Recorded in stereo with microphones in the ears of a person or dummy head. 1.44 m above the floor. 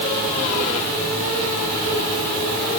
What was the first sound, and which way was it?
Only background noise.